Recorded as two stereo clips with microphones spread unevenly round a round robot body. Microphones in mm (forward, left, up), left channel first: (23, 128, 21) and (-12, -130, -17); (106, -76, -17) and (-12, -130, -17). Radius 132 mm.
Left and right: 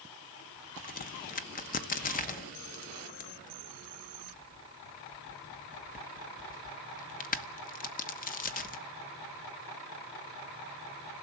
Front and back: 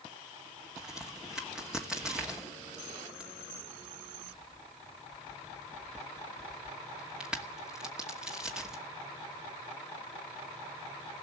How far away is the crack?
About 1.0 m.